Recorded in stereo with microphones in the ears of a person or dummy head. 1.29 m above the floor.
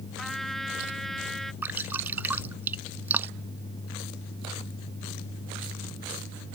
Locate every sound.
0.2 s a trumpet: centre (ahead or behind)
1.6 s dripping: 15° right (ahead or behind)